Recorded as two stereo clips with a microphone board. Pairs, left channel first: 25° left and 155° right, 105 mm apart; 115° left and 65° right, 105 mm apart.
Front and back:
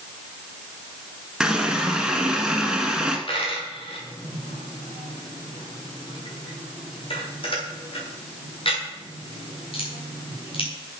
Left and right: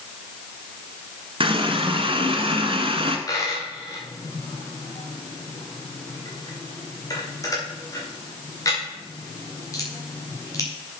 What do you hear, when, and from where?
1.4 s a running tap: 75° right, 1.3 m
3.3 s a dropped coin: 55° left, 3.5 m